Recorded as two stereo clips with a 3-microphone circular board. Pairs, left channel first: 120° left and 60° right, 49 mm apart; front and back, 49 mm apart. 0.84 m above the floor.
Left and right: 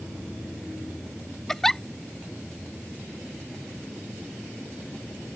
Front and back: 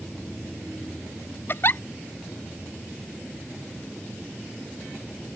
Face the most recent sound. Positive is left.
turn(degrees=40)